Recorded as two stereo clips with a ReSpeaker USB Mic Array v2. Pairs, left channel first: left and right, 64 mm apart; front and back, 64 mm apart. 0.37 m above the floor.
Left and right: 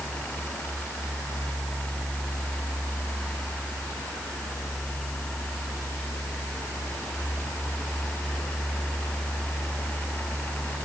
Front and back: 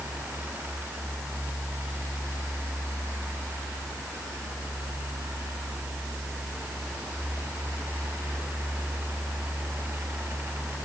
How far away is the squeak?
No squeak in this recording.